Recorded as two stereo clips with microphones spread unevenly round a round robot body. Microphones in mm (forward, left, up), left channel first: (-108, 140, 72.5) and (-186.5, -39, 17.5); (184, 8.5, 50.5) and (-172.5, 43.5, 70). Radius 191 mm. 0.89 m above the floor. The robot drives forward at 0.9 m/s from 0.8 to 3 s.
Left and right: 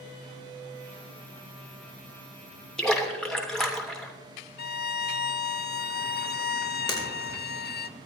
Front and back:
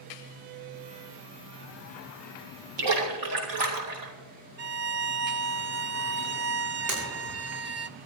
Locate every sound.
2.8 s a splash: 155° left, 3 m
4.6 s a violin: 115° left, 0.7 m
6.9 s breaking glass: 135° left, 8 m